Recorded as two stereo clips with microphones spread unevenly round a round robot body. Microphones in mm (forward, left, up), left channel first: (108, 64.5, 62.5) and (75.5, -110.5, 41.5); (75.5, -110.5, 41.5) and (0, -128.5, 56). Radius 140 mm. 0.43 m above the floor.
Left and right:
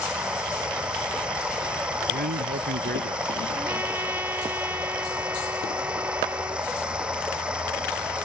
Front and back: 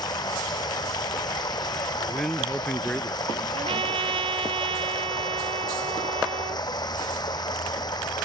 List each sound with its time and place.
0.0 s running water: 15° right
2.1 s a man speaking: 70° right
3.5 s a trumpet: 175° left